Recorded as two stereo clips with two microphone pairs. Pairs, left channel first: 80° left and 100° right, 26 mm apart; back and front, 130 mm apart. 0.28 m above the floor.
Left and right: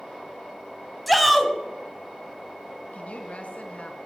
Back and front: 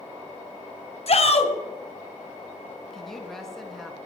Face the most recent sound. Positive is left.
turn(degrees=95)